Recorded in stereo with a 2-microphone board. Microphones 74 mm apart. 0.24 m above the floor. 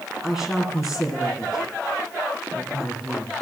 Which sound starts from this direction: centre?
A woman speaking, at 0.2 s.